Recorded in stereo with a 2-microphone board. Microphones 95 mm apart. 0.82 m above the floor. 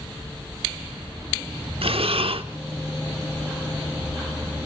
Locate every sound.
1.8 s breathing: 80° right, 0.9 m